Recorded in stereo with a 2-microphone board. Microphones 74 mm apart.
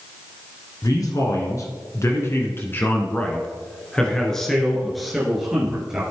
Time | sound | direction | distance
0.8 | a man speaking | 50° left (ahead or behind) | 1.8 m